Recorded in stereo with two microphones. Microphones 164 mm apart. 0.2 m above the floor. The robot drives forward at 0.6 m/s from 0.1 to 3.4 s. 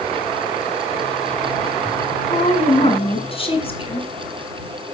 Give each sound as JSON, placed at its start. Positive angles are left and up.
{"t": 2.3, "sound": "a woman speaking", "side_deg": 40, "distance_m": 2.0}